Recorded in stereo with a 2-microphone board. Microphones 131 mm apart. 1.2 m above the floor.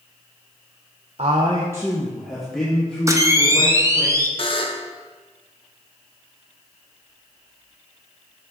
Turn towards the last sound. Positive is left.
turn(degrees=45)  # may be behind; listen again after turning